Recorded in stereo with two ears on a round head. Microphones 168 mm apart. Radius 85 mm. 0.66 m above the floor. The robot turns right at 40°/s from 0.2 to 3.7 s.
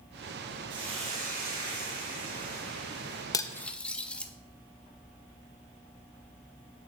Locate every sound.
0.7 s a hiss: 160° right, 3 m; by 3.2 s 55° right, 3 m
3.3 s cutlery clinking: 20° left (ahead or behind), 0.6 m; by 4.3 s 5° left (ahead or behind), 0.6 m